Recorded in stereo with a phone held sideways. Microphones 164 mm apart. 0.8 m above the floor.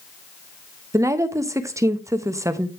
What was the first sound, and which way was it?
A woman speaking, 20° right (ahead or behind).